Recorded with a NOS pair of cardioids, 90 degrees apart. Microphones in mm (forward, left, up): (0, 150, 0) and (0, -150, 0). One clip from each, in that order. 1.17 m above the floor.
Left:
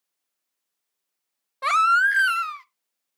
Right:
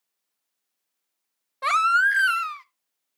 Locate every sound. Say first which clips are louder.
1.6 s a baby crying: left 1 dB; 5° left, 0.5 m